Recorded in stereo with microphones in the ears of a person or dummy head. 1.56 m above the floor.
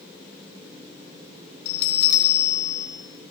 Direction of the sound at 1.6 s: 75° left (ahead or behind).